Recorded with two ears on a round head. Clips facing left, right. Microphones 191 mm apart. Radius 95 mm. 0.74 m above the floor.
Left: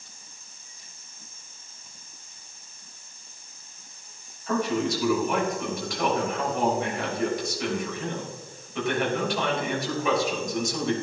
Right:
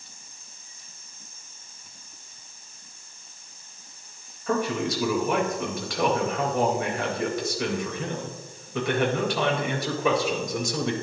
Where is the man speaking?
70° right (ahead or behind), 3.5 m.